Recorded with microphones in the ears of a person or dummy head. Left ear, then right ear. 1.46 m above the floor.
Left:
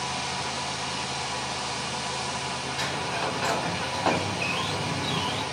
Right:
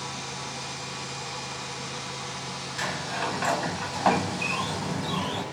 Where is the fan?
60° left (ahead or behind), 0.8 m.